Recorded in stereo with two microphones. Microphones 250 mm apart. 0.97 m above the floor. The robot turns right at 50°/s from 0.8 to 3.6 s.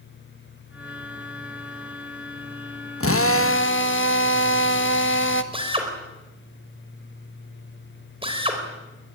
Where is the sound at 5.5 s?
20° right (ahead or behind), 4 m.